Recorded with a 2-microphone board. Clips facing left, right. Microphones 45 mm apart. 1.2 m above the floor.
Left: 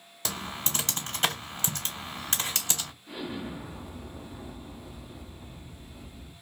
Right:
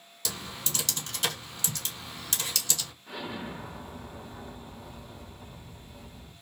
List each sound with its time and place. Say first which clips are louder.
0.2 s typing on a keyboard: left 3 dB; 35° left (ahead or behind), 1.4 m
3.1 s an explosion: left 1 dB; 65° right (ahead or behind), 1.6 m